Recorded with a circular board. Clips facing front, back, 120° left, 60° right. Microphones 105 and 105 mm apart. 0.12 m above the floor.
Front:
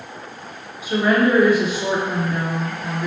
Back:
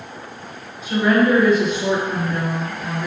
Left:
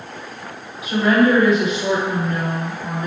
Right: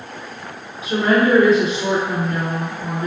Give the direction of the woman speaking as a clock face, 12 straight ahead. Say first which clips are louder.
Back 1 dB, left 1 dB; 2 o'clock.